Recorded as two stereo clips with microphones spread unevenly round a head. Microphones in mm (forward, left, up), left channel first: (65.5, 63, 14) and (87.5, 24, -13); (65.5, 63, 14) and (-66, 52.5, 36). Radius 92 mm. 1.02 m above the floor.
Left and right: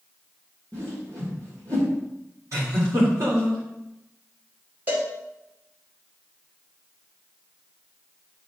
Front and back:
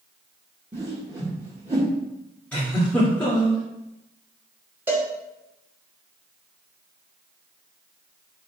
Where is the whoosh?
115° right, 1.6 m.